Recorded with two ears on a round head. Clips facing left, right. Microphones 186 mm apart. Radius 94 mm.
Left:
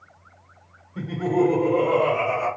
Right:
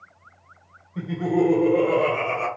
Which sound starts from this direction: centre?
Laughter, at 0.9 s.